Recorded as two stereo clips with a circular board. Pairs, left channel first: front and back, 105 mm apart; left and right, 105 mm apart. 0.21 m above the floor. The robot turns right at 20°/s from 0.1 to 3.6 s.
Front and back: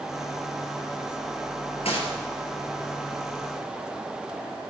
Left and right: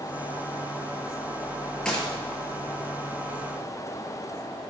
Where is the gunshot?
10° left, 3.5 m.